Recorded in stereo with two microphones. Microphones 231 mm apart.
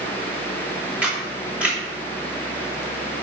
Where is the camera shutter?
5° right (ahead or behind), 3 m.